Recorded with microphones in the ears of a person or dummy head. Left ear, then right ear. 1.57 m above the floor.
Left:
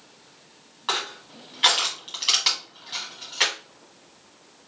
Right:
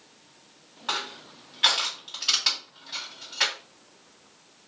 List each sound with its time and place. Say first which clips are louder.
0.9 s crushing: left 3 dB; 5° left (ahead or behind), 1.8 m